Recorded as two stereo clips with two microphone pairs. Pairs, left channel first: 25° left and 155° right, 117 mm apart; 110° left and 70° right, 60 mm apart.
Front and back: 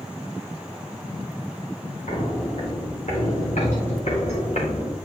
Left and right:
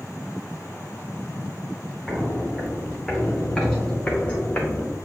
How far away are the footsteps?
About 3.5 m.